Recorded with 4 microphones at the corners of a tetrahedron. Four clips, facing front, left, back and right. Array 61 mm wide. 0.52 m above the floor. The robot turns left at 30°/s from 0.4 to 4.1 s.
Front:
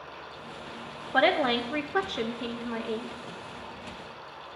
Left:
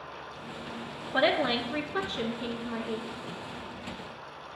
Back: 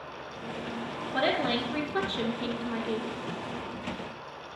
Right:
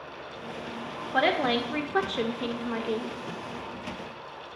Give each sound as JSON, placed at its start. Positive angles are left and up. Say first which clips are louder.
{"t": 1.1, "sound": "a woman speaking", "louder": "right 1 dB, front 4 dB", "azimuth_deg": -25, "distance_m": 1.2}